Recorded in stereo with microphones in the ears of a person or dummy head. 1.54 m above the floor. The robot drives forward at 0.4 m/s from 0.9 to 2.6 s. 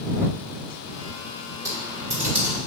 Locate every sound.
1.6 s typing on a keyboard: 10° right (ahead or behind), 1.4 m